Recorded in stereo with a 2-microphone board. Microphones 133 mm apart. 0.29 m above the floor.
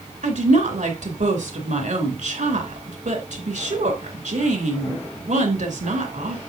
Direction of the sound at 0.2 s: 70° right (ahead or behind).